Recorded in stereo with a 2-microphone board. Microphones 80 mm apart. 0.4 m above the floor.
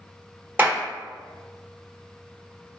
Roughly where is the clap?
Right.